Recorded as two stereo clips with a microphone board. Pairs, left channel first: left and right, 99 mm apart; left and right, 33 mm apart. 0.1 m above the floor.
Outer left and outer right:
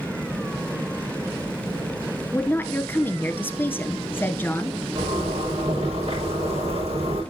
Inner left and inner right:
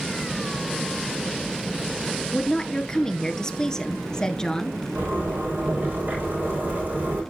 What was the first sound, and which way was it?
A woman speaking, 20° left (ahead or behind).